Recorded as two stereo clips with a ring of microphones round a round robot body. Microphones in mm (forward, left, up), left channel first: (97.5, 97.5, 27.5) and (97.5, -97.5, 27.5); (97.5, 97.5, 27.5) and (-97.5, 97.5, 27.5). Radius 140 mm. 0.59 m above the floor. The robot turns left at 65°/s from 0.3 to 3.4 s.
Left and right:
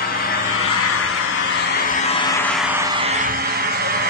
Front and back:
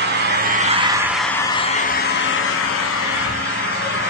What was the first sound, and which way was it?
An engine running, 150° left.